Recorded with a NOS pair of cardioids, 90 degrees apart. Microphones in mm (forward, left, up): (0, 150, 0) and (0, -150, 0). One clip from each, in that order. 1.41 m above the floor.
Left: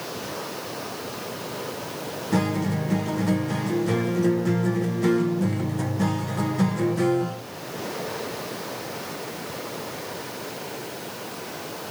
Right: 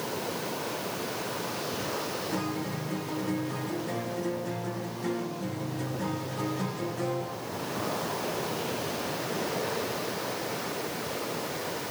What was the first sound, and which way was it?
A guitar, 50° left.